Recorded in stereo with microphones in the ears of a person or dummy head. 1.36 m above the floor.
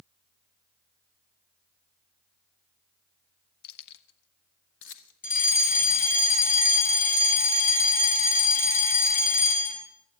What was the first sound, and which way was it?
Keys jangling, 55° left (ahead or behind).